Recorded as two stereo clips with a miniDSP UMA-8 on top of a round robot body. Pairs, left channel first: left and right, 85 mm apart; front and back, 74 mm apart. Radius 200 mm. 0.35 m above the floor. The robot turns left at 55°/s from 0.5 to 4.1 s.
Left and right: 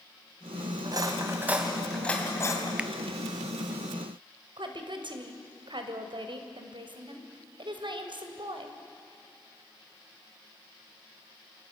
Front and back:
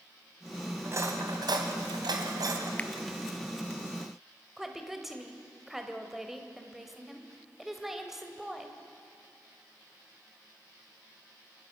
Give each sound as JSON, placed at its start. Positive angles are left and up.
{"t": 0.8, "sound": "cutlery clinking", "azimuth_deg": -125, "distance_m": 2.5}
{"t": 2.8, "sound": "a finger snap", "azimuth_deg": -35, "distance_m": 1.1}
{"t": 4.6, "sound": "a woman speaking", "azimuth_deg": -95, "distance_m": 2.5}